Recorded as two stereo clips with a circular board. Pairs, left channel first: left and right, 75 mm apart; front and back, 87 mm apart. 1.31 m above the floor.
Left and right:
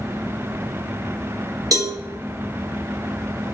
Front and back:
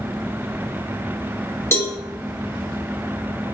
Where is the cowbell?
60° right, 0.9 m.